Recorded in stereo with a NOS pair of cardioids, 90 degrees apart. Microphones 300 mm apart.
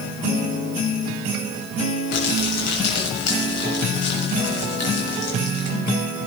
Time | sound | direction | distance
2.1 | crumpling | 60° left | 7 m